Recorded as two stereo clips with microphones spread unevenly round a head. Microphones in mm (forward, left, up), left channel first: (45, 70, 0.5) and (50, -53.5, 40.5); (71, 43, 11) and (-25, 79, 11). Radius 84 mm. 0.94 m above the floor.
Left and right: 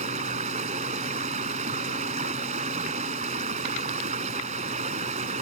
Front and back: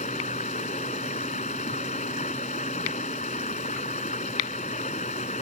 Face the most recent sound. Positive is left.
turn(degrees=-70)